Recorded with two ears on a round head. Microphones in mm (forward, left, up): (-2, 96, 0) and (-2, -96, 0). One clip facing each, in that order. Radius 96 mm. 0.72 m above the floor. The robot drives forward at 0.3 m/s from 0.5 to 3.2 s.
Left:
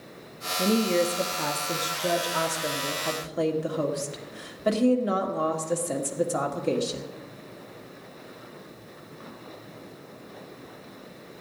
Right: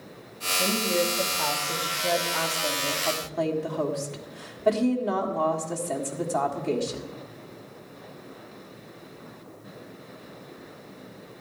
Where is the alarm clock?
No alarm clock in this recording.